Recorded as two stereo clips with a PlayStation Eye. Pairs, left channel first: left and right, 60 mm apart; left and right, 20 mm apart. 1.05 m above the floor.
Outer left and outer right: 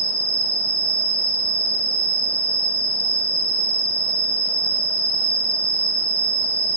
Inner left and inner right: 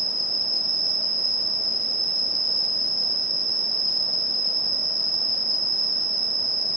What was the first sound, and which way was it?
An insect, 25° left (ahead or behind).